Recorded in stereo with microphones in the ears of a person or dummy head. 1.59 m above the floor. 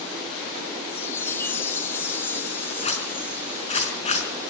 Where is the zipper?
35° left (ahead or behind), 5 m.